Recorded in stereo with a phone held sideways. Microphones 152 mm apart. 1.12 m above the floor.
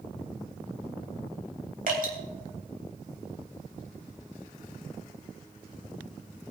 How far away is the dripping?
About 3 m.